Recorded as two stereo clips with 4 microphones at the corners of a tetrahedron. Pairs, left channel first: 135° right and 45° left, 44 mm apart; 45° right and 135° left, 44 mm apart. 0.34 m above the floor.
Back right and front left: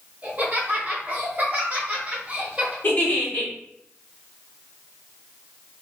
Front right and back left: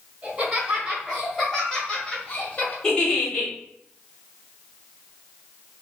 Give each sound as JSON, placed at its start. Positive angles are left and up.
{"t": 0.2, "sound": "laughter", "azimuth_deg": 80, "distance_m": 1.2}
{"t": 2.8, "sound": "a giggle", "azimuth_deg": -110, "distance_m": 1.1}